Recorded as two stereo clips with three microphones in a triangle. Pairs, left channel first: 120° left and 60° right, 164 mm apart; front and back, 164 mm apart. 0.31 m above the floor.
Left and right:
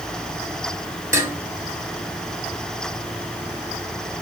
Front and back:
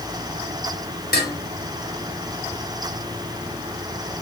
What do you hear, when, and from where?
1.1 s dishes clattering: 15° left, 3 m